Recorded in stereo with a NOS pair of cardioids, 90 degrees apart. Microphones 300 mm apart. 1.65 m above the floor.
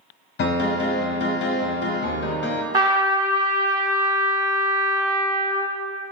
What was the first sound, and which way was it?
A piano, 35° left.